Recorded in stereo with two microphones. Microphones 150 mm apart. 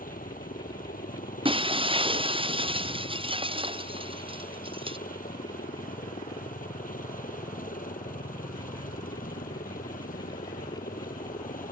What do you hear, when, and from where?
0.0 s a helicopter: 70° left (ahead or behind)
1.4 s breaking glass: 35° right (ahead or behind)